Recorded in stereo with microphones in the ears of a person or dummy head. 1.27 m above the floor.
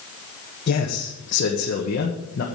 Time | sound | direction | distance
0.7 | a man speaking | 55° left (ahead or behind) | 1.5 m